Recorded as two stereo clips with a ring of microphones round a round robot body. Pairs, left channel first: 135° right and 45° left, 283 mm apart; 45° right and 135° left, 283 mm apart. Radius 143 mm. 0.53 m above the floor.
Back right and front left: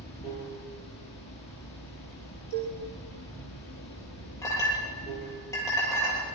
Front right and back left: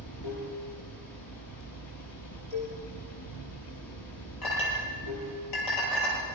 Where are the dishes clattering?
70° left, 5 m.